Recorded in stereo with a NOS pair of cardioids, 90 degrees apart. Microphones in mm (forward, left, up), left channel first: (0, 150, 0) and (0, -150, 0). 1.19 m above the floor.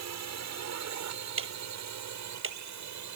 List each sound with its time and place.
0.0 s a drone: 65° right; by 3.2 s 70° right
1.4 s ticking: 45° right